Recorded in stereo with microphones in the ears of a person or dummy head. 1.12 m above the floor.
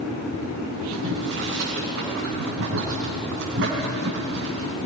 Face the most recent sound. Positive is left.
turn(degrees=-60)  # may be behind; listen again after turning